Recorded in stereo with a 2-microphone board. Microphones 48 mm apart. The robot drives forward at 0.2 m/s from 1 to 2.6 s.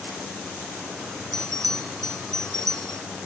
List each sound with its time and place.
1.3 s a bell: 10° left (ahead or behind)